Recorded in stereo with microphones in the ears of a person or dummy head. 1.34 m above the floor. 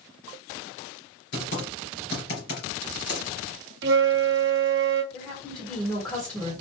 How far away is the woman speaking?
About 1.6 m.